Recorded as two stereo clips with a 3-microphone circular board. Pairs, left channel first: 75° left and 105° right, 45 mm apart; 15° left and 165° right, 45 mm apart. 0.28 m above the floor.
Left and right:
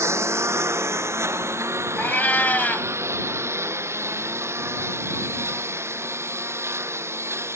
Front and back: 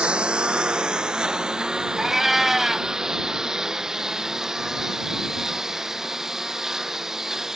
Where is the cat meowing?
115° left.